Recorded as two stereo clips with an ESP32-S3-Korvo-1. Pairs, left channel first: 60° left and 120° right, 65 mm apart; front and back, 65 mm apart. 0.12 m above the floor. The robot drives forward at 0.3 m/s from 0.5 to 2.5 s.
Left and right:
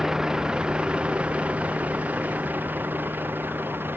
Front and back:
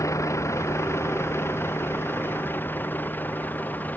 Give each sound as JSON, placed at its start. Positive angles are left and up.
{"t": 0.0, "sound": "a vehicle", "azimuth_deg": -40}